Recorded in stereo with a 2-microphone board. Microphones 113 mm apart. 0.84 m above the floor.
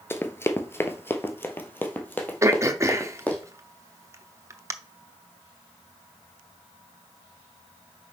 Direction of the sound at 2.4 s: 25° right (ahead or behind).